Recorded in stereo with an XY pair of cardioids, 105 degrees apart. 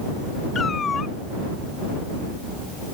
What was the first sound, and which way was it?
A cat meowing, 40° left.